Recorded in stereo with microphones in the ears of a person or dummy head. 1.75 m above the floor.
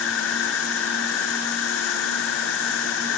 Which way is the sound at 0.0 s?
70° left (ahead or behind).